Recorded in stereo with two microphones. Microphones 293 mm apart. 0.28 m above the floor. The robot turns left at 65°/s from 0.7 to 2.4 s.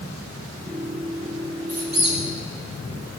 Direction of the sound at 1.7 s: 50° right (ahead or behind).